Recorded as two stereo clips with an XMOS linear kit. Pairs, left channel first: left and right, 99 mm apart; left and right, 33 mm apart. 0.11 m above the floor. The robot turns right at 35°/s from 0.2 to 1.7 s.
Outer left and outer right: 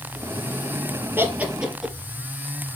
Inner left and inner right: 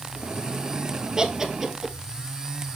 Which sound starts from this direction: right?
Laughter, at 1.2 s.